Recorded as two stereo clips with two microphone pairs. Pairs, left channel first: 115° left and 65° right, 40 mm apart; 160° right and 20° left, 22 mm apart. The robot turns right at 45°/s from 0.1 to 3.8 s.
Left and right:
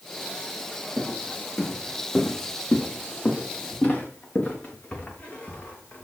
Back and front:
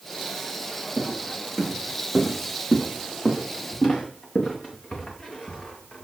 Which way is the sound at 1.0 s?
45° left.